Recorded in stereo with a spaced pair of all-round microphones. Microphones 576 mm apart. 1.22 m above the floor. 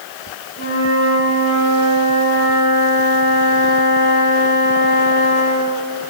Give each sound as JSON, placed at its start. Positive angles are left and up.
{"t": 0.6, "sound": "a flute", "side_deg": -70, "distance_m": 5.0}